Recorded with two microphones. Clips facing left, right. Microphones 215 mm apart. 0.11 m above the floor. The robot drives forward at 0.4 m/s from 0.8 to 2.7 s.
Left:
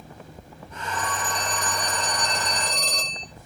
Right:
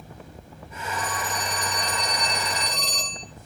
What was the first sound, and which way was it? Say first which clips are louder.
A phone ringing: left 1 dB; 50° left (ahead or behind).